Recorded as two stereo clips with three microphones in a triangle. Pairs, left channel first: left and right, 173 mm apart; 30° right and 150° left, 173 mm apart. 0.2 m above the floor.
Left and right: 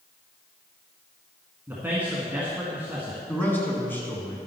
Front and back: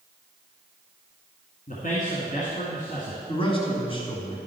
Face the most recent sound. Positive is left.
turn(degrees=15)